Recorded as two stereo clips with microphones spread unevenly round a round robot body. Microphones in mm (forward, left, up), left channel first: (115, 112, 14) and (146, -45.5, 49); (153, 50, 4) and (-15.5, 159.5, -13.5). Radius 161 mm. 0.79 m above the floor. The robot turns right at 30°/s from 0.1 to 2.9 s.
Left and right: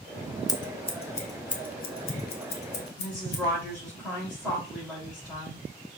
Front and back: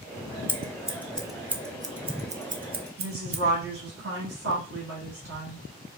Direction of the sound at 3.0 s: 170° right.